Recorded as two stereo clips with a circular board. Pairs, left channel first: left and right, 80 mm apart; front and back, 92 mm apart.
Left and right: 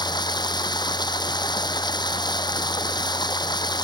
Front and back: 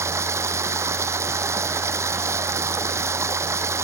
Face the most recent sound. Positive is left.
turn(degrees=120)